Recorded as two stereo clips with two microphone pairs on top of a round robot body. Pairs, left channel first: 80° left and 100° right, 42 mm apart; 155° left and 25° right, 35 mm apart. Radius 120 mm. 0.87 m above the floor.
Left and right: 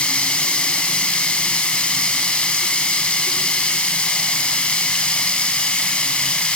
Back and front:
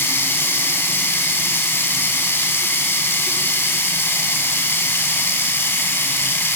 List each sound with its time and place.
0.0 s running water: 145° left, 0.9 m